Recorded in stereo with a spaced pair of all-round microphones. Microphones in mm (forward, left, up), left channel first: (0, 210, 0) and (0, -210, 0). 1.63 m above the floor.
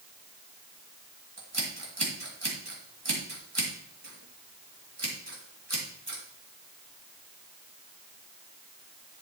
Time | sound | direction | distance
1.4 | scissors | 75° right (ahead or behind) | 2 m